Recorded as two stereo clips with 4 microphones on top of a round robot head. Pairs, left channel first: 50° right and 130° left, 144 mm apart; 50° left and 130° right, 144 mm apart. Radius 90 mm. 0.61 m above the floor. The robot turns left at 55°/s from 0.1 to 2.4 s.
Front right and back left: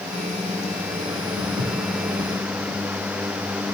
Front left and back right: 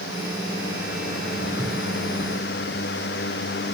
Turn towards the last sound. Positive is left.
turn(degrees=155)